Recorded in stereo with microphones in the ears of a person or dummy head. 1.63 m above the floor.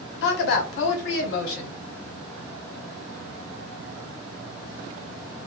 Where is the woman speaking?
65° left (ahead or behind), 0.7 m.